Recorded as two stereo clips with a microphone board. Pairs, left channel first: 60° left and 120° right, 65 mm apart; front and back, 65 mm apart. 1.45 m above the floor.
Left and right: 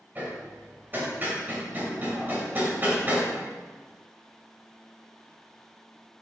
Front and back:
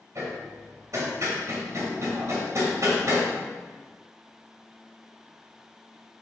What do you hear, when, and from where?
0.1 s hammering: 170° right, 2.0 m